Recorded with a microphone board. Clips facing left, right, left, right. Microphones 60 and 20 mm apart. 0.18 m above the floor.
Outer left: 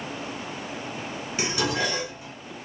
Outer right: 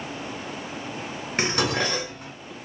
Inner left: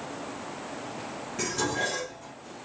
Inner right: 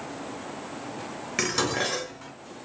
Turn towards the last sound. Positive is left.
turn(degrees=-50)  # may be behind; listen again after turning